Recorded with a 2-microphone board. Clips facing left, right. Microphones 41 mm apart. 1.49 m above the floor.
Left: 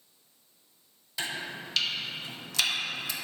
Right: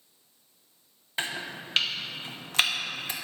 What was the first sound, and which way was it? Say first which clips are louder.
Chopping: right 2 dB; 35° right (ahead or behind).